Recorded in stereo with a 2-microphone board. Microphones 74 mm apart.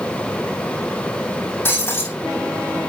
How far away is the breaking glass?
About 5.5 m.